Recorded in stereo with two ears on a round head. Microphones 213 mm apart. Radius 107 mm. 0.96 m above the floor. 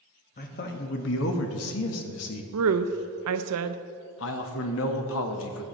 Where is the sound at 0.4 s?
35° left (ahead or behind), 1.3 m; by 2.4 s 70° left (ahead or behind), 1.2 m.